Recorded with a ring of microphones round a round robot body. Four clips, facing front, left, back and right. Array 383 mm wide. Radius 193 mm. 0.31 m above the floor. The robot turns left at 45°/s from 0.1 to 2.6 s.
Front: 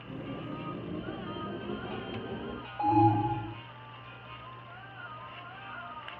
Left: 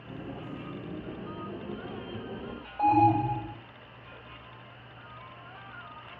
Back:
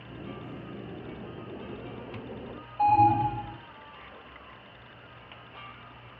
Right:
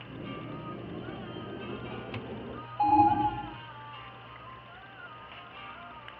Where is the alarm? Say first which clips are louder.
Even, back 3 dB; 65° left, 2 m.